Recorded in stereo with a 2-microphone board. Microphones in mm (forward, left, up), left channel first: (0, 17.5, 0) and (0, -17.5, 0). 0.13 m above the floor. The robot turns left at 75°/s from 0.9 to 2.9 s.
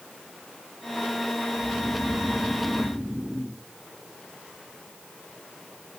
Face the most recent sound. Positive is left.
turn(degrees=-35)